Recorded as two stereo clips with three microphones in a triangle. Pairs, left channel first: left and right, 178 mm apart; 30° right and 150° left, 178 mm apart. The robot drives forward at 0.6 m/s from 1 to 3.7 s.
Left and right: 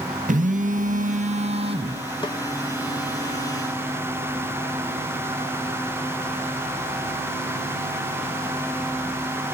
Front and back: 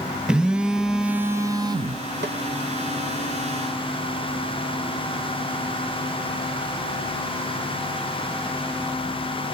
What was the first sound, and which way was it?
A phone buzzing, 125° right.